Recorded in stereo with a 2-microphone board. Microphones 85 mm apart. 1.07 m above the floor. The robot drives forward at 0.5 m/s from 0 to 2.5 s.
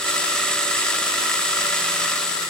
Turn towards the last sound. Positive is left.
No sound to turn to.